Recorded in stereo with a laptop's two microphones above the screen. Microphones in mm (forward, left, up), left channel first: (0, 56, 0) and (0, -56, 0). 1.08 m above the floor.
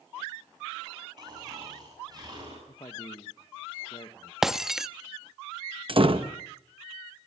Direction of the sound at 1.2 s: 35° right (ahead or behind).